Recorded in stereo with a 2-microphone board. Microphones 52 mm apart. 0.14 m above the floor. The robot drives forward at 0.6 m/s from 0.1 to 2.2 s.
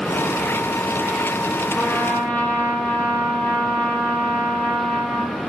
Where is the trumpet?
35° left (ahead or behind), 1.8 m; by 5.4 s 30° left (ahead or behind), 2 m.